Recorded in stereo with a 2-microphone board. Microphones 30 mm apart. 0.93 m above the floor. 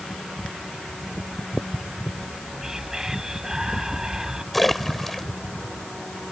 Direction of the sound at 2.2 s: 20° right (ahead or behind).